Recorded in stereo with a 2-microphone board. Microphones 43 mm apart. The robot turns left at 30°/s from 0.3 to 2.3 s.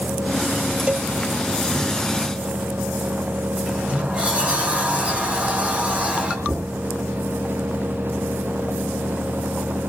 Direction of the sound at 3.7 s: 30° right (ahead or behind).